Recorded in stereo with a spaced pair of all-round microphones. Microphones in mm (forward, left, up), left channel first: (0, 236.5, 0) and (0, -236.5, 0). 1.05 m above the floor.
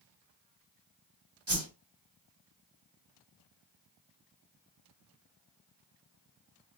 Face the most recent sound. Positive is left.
turn(degrees=-60)  # may be behind; listen again after turning